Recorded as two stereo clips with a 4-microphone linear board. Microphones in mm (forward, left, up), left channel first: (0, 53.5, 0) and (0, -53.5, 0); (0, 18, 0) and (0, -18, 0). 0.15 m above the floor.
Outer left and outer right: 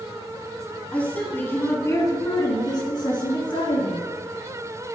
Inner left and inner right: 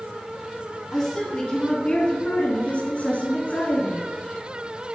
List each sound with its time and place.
0.9 s a woman speaking: 10° left (ahead or behind), 1.5 m; by 4.1 s 55° left (ahead or behind), 2.5 m